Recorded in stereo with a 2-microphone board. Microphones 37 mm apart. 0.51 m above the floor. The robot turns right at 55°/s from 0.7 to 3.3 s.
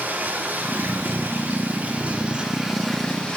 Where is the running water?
115° right, 4 m; by 3.4 s 25° left, 4 m.